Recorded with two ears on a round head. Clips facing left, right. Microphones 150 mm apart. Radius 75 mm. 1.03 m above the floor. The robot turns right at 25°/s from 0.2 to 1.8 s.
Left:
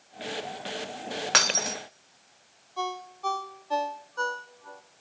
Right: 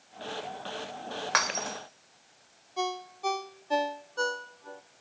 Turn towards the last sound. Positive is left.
turn(degrees=-20)  # may be behind; listen again after turning